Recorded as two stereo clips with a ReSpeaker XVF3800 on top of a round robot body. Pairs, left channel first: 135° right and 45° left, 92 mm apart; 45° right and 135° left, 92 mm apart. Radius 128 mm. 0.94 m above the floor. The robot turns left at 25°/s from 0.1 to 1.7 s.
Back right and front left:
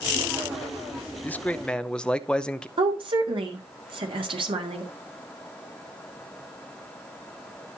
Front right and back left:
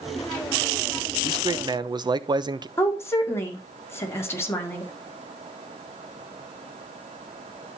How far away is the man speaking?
About 1.1 m.